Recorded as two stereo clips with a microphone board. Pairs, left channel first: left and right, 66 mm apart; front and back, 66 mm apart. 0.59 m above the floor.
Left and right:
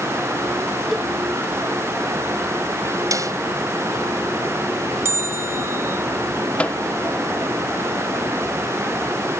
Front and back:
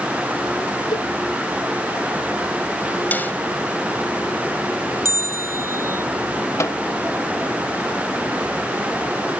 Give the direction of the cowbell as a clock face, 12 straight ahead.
12 o'clock.